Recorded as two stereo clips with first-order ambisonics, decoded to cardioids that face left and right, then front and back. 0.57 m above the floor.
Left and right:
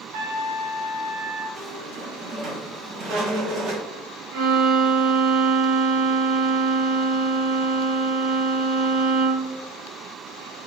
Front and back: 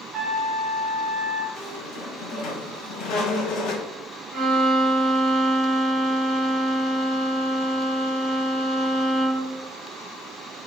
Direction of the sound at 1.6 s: 45° right.